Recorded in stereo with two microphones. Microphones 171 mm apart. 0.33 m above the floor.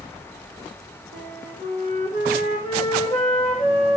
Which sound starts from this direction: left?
A flute, at 1.1 s.